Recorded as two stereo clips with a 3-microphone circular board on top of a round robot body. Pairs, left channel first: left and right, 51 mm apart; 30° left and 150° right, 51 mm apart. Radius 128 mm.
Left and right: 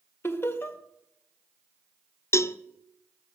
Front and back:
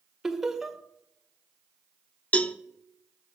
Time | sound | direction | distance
0.2 | laughter | 125° left | 1.8 m
2.3 | a cowbell | 90° left | 0.8 m